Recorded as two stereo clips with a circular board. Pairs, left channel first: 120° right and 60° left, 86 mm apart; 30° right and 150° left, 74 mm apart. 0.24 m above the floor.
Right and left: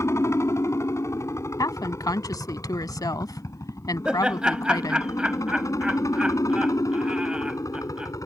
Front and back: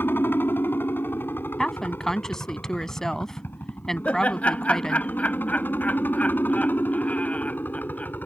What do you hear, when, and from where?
0.0 s a helicopter: 80° right; by 8.3 s 85° right
1.6 s a woman speaking: 110° right
4.0 s laughter: straight ahead